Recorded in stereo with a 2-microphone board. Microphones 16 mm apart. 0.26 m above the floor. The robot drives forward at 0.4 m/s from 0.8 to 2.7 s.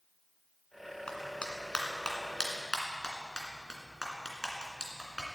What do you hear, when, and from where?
1.1 s a clap: 60° left (ahead or behind), 2 m; by 5.2 s 50° left (ahead or behind), 2.5 m